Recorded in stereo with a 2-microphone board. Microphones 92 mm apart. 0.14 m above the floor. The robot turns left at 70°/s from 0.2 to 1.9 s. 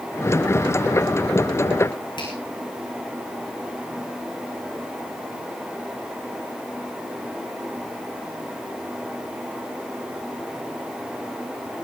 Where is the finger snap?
55° left (ahead or behind), 8 m.